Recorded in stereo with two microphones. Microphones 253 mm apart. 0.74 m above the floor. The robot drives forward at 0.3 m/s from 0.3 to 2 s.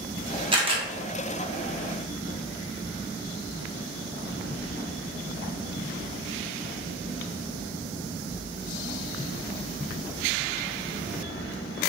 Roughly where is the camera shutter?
Centre.